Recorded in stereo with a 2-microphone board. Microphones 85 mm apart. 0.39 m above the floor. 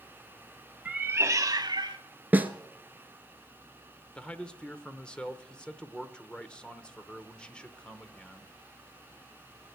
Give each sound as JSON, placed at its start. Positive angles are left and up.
{"t": 0.8, "sound": "a cat meowing", "side_deg": -10, "distance_m": 0.5}
{"t": 2.3, "sound": "a snare drum", "side_deg": -20, "distance_m": 0.8}
{"t": 4.2, "sound": "a man speaking", "side_deg": 10, "distance_m": 0.9}